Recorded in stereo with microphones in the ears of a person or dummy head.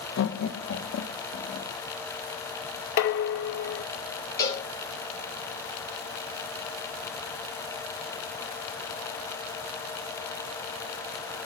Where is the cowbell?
15° left (ahead or behind), 2.5 m.